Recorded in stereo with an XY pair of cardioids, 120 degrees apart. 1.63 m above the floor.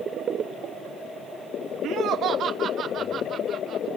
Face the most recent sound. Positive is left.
turn(degrees=-55)